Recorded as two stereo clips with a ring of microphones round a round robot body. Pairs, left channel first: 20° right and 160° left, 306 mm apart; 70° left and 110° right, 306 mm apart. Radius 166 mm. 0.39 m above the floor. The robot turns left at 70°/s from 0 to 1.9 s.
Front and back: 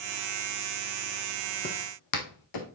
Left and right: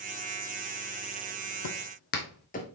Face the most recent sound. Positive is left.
turn(degrees=0)